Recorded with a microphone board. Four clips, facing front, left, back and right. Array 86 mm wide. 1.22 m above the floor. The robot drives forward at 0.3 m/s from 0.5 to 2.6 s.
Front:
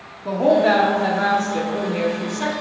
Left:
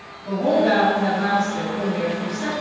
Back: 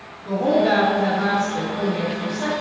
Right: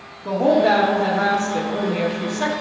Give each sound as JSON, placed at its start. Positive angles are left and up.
{"t": 0.2, "sound": "a woman speaking", "azimuth_deg": -40, "distance_m": 1.1}